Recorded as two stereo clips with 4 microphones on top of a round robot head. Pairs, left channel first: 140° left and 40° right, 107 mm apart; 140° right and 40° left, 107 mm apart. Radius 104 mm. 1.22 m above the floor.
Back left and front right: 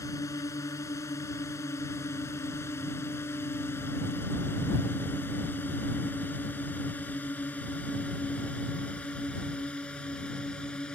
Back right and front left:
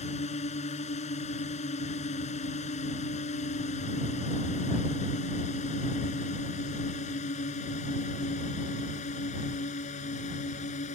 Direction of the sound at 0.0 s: 160° right.